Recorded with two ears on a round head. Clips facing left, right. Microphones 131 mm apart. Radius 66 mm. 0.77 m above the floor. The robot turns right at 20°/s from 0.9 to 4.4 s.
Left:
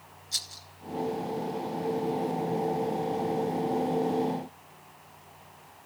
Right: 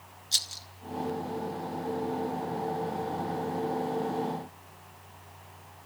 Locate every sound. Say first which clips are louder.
0.3 s a rattle: right 1 dB; 30° right (ahead or behind), 1.4 m